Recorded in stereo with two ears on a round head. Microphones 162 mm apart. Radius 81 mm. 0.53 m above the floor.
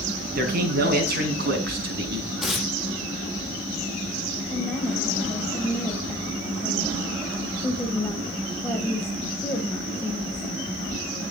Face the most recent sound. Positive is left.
turn(degrees=5)  # may be behind; listen again after turning